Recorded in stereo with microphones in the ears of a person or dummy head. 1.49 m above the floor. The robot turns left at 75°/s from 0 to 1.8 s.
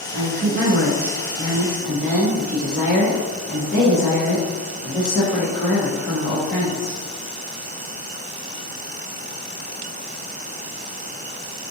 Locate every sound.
0.1 s a woman speaking: 50° right, 1.3 m; by 7.0 s 175° right, 1.3 m